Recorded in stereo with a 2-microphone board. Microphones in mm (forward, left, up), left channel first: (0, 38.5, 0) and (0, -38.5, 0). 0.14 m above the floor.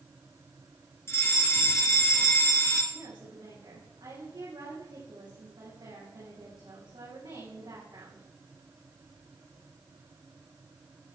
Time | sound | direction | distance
1.1 | a fire alarm | 35° left (ahead or behind) | 3 m
2.9 | a woman speaking | 80° right | 7 m